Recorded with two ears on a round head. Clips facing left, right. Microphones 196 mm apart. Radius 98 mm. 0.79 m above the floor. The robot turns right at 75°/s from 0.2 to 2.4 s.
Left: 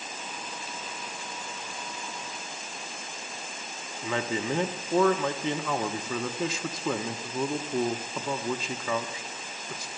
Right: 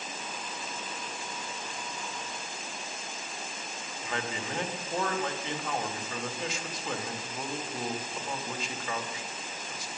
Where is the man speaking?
70° left (ahead or behind), 1.2 m.